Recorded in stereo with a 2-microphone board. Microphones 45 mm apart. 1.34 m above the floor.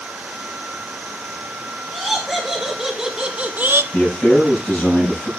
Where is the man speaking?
30° left (ahead or behind), 7.5 m.